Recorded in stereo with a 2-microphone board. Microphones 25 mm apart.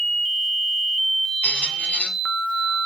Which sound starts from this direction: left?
A squeak, at 1.4 s.